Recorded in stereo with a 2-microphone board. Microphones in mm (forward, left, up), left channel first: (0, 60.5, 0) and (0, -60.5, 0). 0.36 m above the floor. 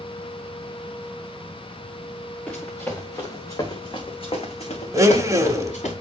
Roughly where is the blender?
Right.